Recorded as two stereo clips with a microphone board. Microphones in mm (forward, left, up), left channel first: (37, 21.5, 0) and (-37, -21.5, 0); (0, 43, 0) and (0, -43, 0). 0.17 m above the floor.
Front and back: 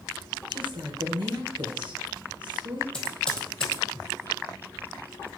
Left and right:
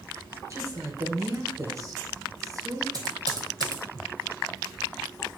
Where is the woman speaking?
140° right, 2.5 m.